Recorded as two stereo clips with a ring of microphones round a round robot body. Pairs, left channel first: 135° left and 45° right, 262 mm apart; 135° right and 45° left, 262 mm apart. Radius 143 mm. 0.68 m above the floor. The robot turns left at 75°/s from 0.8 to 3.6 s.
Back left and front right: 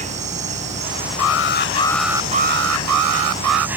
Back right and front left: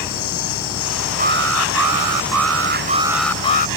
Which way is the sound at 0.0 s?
110° right.